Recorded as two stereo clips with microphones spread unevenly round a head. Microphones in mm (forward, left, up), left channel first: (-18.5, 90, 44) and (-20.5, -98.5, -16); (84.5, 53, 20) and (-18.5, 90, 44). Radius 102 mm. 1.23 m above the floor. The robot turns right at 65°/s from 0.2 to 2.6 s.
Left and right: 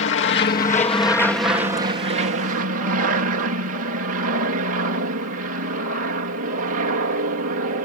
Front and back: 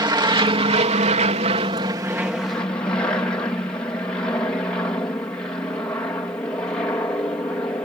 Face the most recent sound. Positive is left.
turn(degrees=-95)